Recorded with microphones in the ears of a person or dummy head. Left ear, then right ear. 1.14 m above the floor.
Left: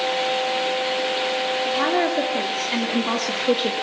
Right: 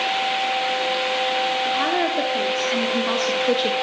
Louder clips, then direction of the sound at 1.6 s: Even; 5° left (ahead or behind).